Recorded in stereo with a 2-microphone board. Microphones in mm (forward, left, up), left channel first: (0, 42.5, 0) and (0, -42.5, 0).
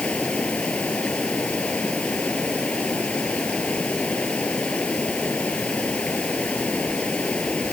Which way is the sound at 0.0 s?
15° left (ahead or behind).